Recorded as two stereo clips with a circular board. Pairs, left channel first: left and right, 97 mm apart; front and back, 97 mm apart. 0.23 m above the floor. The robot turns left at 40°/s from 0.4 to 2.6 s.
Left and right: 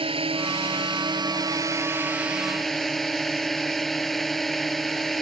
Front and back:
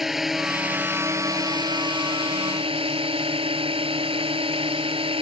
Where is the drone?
95° right; by 5.2 s straight behind.